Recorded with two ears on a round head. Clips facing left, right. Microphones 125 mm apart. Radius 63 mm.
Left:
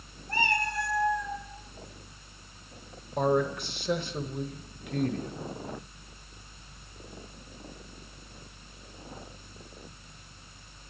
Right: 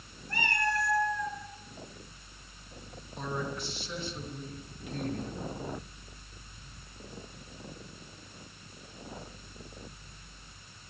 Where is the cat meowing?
30° left (ahead or behind), 3.5 m; by 1.4 s 10° left (ahead or behind), 3.5 m.